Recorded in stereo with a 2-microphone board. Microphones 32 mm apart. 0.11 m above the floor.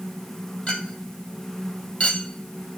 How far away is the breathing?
No breathing in this recording.